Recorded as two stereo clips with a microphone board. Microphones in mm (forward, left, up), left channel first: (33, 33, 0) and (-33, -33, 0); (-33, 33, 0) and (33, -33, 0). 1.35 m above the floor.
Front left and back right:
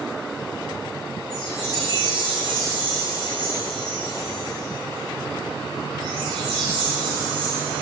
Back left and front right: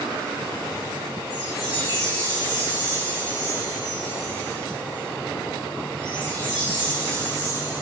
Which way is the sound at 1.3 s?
100° right.